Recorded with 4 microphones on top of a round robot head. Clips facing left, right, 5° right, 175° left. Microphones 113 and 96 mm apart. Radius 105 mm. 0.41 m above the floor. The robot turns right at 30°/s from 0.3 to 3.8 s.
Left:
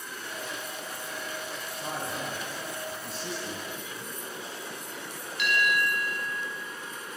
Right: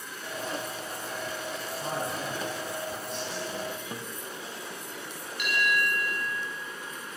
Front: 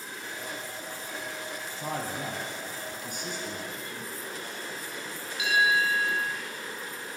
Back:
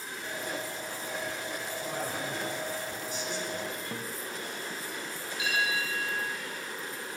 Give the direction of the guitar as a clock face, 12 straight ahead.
5 o'clock.